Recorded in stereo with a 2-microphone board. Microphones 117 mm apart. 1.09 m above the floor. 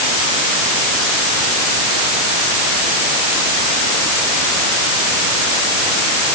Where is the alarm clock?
No alarm clock in this recording.